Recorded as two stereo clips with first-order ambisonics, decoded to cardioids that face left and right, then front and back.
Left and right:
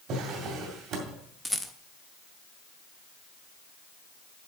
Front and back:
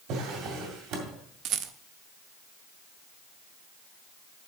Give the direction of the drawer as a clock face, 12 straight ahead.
5 o'clock.